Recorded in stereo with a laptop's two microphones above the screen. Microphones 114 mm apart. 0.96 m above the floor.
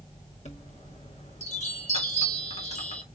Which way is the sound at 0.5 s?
65° left (ahead or behind).